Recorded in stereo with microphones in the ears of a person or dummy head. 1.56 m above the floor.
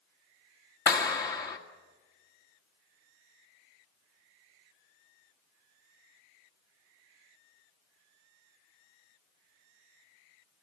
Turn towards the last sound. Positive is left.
turn(degrees=20)  # may be behind; listen again after turning